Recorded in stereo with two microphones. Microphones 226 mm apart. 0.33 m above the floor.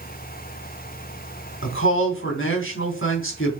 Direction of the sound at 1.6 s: 65° left (ahead or behind).